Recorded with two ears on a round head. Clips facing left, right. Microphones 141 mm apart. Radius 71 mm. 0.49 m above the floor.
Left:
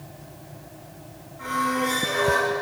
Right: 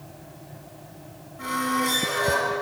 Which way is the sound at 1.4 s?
50° right (ahead or behind).